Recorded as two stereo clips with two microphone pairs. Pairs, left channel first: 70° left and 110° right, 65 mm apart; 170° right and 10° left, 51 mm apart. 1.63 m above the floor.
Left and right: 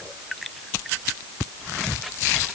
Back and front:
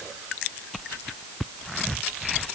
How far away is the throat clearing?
No throat clearing in this recording.